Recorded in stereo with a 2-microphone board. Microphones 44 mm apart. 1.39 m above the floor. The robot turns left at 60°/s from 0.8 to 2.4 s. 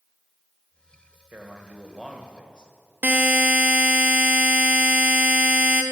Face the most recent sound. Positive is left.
turn(degrees=-40)  # may be behind; listen again after turning